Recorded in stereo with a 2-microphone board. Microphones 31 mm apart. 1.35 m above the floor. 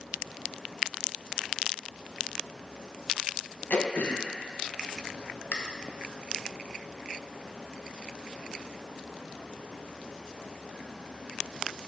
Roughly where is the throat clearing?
Left.